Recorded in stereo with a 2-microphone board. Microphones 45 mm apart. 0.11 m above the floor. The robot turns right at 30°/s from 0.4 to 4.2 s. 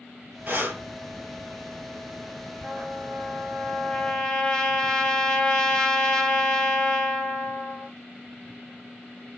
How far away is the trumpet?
About 1.4 m.